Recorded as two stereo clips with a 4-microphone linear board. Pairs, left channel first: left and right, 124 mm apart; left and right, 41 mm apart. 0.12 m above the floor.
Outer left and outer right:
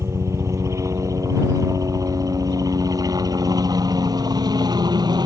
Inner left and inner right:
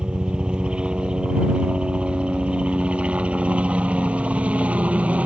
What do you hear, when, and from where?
0.0 s a helicopter: 25° right (ahead or behind); by 5.3 s 35° right (ahead or behind)